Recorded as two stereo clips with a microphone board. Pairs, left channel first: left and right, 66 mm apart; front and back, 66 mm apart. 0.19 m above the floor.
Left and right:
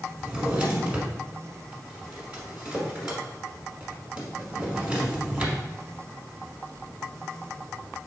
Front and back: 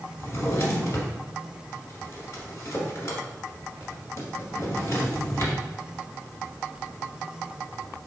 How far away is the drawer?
About 1.3 m.